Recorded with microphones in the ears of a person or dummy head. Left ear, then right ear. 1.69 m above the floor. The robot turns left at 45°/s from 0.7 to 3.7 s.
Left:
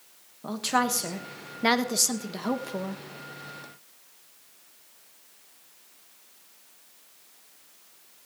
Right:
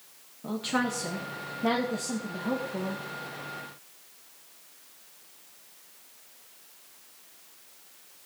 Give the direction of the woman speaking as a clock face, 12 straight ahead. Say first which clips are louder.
Left 4 dB; 7 o'clock.